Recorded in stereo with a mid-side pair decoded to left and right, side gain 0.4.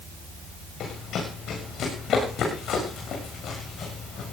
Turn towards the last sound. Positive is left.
turn(degrees=70)